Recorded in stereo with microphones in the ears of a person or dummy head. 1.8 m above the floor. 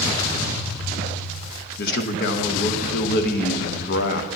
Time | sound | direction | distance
1.8 | a man speaking | 55° left (ahead or behind) | 0.8 m